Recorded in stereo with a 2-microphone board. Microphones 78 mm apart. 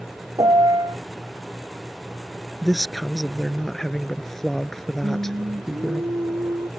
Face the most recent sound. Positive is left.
turn(degrees=-55)  # may be behind; listen again after turning